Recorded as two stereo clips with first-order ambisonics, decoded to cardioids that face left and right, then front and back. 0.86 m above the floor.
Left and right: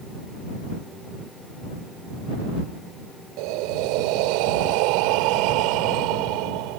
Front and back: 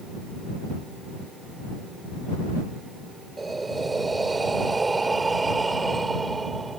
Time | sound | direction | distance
3.4 | breathing | 100° right | ?